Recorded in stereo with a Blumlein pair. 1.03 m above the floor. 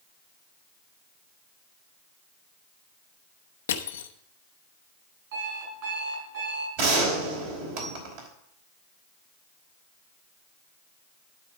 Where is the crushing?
65° left, 0.8 m.